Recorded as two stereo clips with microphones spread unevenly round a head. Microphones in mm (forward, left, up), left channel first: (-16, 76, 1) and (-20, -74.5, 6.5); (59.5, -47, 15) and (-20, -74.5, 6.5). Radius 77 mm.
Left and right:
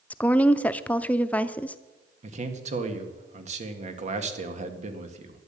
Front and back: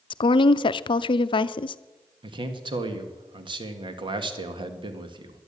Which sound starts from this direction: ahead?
A woman speaking, at 0.1 s.